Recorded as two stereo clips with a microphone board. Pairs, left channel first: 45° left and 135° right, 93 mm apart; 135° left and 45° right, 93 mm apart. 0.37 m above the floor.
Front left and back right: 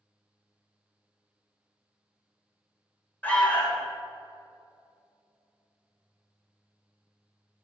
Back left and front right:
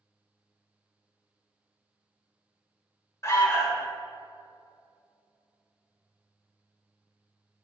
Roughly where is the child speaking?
I don't hear a child speaking.